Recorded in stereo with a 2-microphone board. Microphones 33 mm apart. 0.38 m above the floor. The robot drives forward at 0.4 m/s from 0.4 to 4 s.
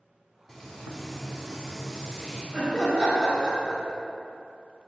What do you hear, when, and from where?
0.5 s frying: centre (ahead or behind), 0.6 m
2.5 s laughter: 10° left (ahead or behind), 0.9 m